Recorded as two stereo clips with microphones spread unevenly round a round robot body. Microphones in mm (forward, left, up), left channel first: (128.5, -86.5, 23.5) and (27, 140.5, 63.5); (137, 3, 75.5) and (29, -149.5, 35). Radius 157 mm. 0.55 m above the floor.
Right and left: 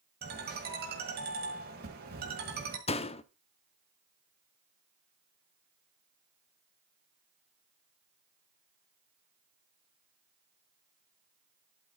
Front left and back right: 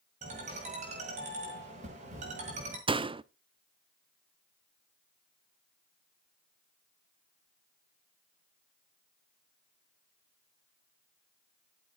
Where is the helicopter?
I don't hear a helicopter.